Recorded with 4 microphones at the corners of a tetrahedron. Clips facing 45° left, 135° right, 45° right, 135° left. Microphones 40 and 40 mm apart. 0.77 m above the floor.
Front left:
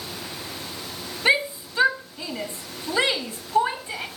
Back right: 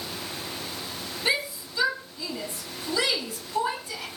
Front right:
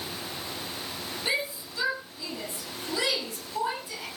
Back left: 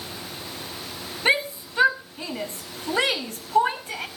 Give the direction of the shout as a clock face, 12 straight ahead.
9 o'clock.